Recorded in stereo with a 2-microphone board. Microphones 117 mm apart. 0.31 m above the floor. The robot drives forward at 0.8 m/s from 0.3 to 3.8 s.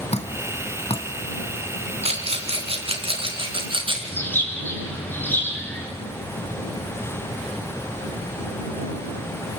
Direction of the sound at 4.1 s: 15° left (ahead or behind).